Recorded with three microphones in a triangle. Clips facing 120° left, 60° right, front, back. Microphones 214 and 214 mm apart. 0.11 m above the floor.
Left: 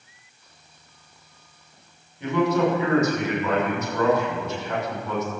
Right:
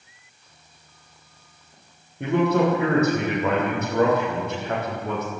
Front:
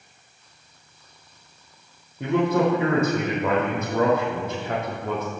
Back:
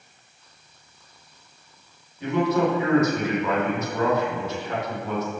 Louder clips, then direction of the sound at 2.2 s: Right 1 dB, front 1 dB; 35° right.